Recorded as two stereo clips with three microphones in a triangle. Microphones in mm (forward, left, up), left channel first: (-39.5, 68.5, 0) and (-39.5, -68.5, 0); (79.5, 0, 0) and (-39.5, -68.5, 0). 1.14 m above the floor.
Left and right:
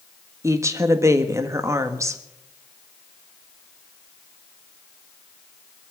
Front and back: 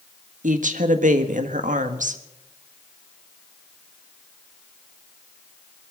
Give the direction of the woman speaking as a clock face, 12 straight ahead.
5 o'clock.